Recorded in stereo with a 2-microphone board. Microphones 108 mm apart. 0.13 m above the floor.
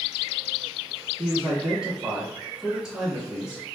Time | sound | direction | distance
1.2 | a man speaking | 5° right (ahead or behind) | 1.5 m